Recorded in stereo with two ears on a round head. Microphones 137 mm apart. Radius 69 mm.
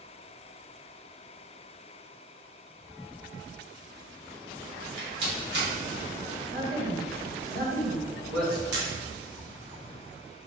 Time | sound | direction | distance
4.8 | a rattle | 75° right (ahead or behind) | 1.9 m
6.5 | a man speaking | 70° right (ahead or behind) | 1.6 m
8.7 | a camera shutter | 75° right (ahead or behind) | 1.1 m